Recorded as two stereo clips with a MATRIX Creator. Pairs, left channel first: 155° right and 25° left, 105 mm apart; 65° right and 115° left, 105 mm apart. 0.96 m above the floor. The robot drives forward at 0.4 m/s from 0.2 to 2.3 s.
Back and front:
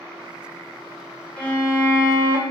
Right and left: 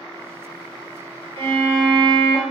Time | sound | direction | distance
1.4 | a violin | 125° left | 1.5 m